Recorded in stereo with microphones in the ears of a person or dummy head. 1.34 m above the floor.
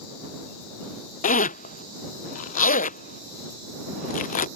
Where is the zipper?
35° left (ahead or behind).